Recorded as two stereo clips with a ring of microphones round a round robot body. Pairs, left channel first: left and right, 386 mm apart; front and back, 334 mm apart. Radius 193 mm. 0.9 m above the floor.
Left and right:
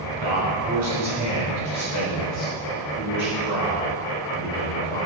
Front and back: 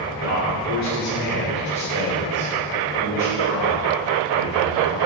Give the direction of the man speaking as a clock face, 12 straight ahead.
2 o'clock.